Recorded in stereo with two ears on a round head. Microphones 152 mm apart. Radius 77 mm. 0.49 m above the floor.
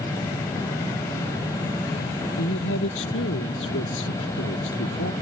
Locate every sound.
2.4 s a woman speaking: 85° left